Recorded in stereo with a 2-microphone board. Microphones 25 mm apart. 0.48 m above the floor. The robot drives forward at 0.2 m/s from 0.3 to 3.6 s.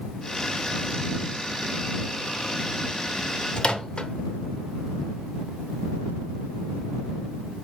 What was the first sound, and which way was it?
A microwave, 45° left (ahead or behind).